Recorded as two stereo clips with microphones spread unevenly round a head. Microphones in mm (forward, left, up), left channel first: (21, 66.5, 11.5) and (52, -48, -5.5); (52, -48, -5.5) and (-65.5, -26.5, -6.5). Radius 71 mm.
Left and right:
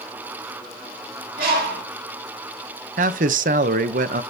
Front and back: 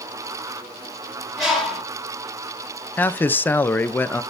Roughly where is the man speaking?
Right.